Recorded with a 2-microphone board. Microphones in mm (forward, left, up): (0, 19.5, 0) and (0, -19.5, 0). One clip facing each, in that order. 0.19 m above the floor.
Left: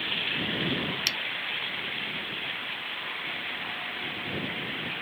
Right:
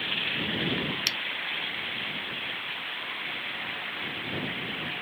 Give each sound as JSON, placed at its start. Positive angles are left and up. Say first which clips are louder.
{"t": 1.1, "sound": "a finger snap", "louder": "left 1 dB", "side_deg": 0}